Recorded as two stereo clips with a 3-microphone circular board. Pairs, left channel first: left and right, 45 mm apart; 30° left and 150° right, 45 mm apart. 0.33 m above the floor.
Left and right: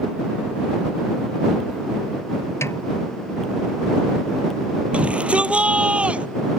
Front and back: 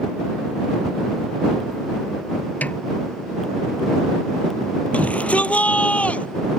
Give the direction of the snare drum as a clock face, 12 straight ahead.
9 o'clock.